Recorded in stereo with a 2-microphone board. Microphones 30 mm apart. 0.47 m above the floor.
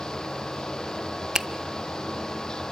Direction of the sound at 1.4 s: 20° right (ahead or behind).